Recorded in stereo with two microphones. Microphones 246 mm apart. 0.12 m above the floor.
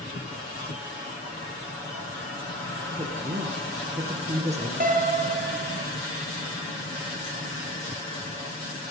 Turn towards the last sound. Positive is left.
turn(degrees=-35)  # may be behind; listen again after turning